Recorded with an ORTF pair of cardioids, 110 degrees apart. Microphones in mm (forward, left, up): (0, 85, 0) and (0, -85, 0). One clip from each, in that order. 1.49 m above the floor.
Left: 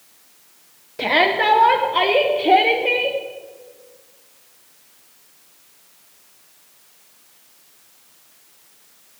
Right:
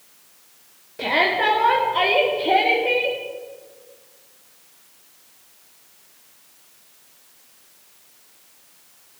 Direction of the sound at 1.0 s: 25° left.